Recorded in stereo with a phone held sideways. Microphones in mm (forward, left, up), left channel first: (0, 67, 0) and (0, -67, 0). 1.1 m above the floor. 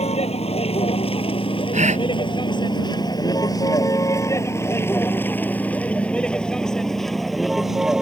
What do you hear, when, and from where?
0.0 s a vehicle: 50° left (ahead or behind); by 8.0 s 5° right (ahead or behind)
1.7 s a gasp: 60° right (ahead or behind)